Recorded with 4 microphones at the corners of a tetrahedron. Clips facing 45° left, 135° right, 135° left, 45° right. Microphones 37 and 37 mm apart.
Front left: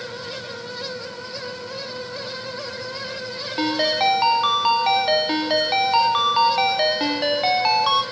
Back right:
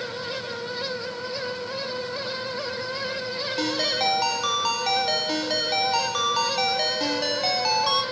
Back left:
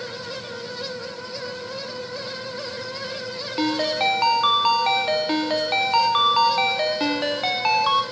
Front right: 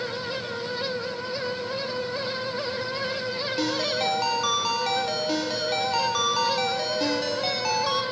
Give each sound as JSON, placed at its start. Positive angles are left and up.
{"t": 3.6, "sound": "a ringtone", "azimuth_deg": 100, "distance_m": 0.6}